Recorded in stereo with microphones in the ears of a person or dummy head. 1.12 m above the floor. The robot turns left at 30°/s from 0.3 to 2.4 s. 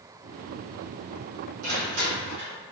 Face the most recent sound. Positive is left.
turn(degrees=-65)  # may be behind; listen again after turning